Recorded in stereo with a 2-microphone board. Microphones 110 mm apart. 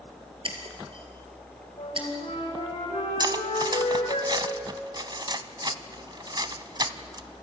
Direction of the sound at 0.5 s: 50° right (ahead or behind).